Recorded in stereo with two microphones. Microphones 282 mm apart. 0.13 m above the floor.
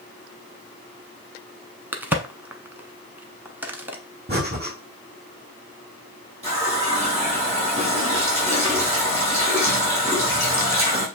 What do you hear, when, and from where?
1.9 s a crack: 5° right (ahead or behind), 0.7 m
4.3 s breathing: 35° right (ahead or behind), 1.8 m
6.4 s a running tap: 20° right (ahead or behind), 3.5 m